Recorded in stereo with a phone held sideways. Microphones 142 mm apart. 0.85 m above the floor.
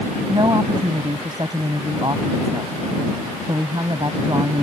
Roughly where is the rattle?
No rattle in this recording.